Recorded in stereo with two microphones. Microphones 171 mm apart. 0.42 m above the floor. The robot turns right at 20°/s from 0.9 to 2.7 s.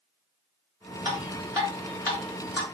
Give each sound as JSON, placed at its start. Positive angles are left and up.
{"t": 1.1, "sound": "dripping", "side_deg": -30, "distance_m": 1.9}